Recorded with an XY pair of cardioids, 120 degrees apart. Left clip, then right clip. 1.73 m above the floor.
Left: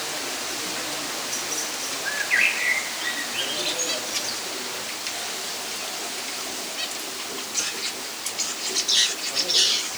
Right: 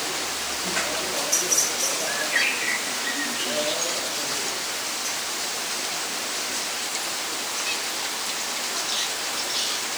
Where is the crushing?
No crushing in this recording.